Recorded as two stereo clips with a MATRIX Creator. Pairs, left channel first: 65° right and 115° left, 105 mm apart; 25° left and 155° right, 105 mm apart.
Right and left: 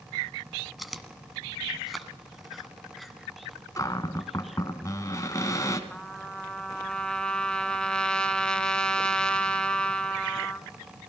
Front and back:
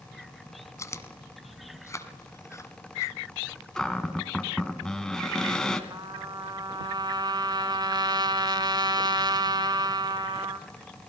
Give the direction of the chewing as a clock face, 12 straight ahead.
11 o'clock.